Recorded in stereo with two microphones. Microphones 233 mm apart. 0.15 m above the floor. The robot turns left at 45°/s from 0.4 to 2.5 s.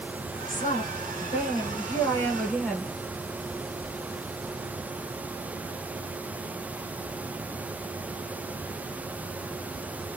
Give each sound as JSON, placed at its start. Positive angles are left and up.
{"t": 0.5, "sound": "a woman speaking", "azimuth_deg": 95, "distance_m": 1.2}